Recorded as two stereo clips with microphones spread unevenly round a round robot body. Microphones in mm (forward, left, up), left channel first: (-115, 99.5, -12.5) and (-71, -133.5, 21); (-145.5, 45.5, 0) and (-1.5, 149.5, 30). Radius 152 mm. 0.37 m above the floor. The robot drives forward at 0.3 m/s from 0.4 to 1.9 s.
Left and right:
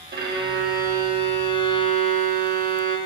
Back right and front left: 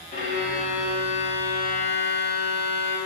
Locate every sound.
0.1 s a violin: 125° right, 1.8 m; by 3.0 s 135° right, 2 m